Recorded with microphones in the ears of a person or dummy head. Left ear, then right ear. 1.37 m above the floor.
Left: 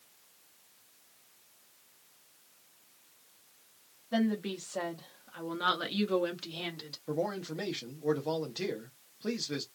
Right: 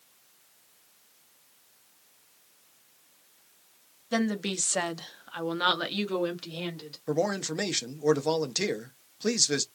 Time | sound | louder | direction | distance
4.1 | a woman speaking | right 3 dB | 80° right | 0.8 m
7.1 | a man speaking | right 6 dB | 80° right | 0.6 m